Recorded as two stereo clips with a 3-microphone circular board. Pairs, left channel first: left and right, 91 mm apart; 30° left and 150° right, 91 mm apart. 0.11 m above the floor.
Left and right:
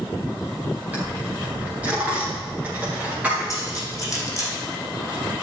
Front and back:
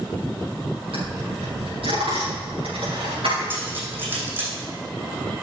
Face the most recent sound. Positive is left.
turn(degrees=140)